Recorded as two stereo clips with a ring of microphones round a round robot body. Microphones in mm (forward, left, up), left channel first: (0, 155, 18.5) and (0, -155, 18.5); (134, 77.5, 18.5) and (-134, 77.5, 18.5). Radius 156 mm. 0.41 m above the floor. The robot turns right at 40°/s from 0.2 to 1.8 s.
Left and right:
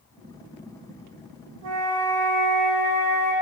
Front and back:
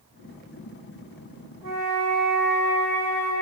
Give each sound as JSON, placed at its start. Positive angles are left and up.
{"t": 1.6, "sound": "a flute", "azimuth_deg": -65, "distance_m": 6.0}